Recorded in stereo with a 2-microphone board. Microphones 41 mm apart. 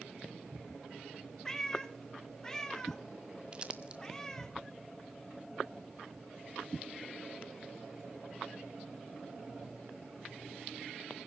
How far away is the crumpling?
About 1.6 m.